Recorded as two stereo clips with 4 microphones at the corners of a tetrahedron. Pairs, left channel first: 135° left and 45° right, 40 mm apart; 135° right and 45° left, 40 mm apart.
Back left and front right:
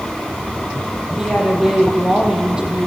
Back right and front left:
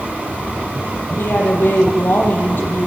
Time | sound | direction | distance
1.2 | a woman speaking | 120° right | 8 m